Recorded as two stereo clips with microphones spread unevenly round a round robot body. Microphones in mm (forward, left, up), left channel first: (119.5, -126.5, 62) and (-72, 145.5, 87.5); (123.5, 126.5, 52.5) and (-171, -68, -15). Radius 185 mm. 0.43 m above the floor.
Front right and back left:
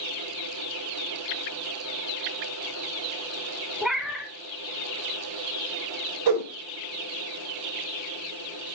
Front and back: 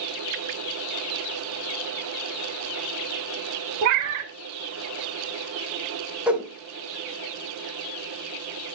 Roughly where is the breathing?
I don't hear breathing.